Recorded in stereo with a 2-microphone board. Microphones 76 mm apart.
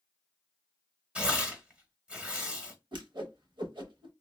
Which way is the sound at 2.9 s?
70° right (ahead or behind).